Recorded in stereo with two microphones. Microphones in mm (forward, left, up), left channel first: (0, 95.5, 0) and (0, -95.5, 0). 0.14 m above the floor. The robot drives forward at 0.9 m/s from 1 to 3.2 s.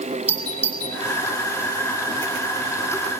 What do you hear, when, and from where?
0.3 s a doorbell: 35° left (ahead or behind), 7 m